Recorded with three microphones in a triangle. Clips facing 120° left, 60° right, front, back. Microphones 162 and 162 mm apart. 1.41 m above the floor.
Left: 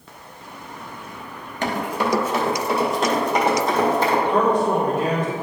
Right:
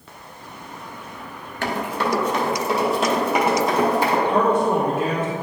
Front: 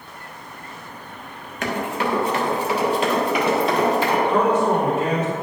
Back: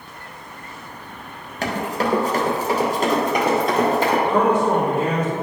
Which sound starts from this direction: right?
A man speaking, at 4.3 s.